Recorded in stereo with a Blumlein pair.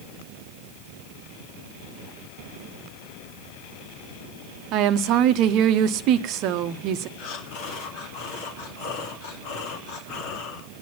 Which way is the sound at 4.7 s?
40° right.